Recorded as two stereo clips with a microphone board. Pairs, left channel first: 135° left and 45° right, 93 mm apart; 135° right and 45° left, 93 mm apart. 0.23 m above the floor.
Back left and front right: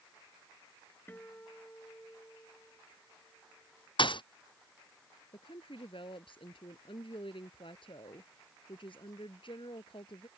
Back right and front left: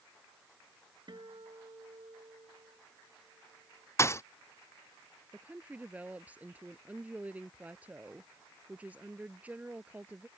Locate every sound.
1.1 s a guitar: 70° left
4.0 s a thud: 165° left
5.3 s a woman speaking: 120° left